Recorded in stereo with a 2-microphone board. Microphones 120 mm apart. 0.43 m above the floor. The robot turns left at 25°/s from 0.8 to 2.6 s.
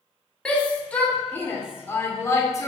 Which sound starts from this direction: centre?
A shout, at 0.5 s.